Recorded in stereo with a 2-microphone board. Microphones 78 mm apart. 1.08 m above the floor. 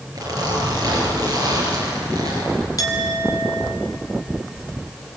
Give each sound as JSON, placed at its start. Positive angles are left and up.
{"t": 0.1, "sound": "a zipper", "side_deg": -50, "distance_m": 6.5}
{"t": 2.8, "sound": "a clink", "side_deg": 55, "distance_m": 2.5}